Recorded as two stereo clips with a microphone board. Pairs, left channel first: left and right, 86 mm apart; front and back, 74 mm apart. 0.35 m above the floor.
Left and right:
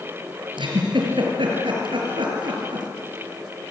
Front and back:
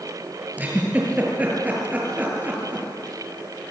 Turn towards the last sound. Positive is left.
turn(degrees=-110)